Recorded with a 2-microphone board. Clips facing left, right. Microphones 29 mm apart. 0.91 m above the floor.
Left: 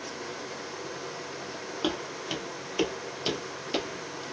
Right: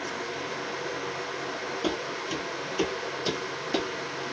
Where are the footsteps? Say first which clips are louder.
Left 1 dB; 40° left (ahead or behind), 1.6 m; by 4.2 s 5° left (ahead or behind), 1.0 m.